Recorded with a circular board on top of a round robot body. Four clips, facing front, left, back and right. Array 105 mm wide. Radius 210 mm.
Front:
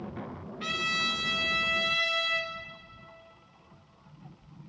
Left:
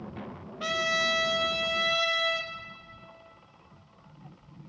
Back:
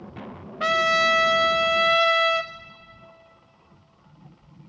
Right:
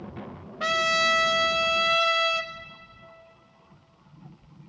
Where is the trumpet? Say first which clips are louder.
Right 5 dB, back 14 dB; 160° right, 0.5 m.